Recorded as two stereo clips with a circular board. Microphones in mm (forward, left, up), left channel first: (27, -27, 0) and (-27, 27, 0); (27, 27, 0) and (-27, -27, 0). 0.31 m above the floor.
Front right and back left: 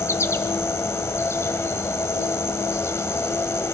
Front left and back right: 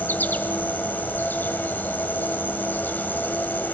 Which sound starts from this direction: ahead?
An insect, at 0.0 s.